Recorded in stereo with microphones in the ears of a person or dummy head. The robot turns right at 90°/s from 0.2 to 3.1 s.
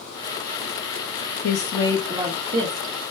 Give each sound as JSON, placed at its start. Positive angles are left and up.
{"t": 1.4, "sound": "a woman speaking", "azimuth_deg": 130, "distance_m": 0.7}